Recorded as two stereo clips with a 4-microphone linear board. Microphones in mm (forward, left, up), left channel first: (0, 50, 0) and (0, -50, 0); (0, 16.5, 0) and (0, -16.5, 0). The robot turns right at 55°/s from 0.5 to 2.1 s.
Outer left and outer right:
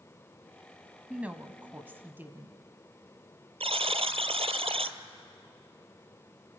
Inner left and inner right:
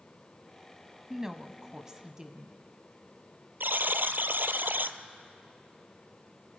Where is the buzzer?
85° right, 0.7 m.